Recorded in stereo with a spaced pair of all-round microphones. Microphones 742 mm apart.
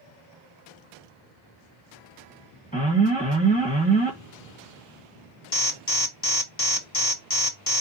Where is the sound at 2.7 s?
10° left (ahead or behind), 1.4 m.